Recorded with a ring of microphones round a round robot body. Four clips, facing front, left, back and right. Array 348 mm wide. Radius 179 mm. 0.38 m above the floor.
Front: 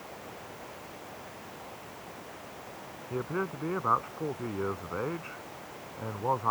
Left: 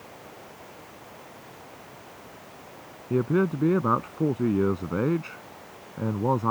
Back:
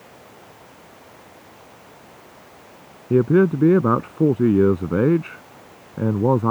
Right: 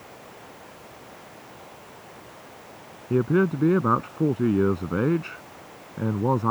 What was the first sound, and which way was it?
A man speaking, 170° right.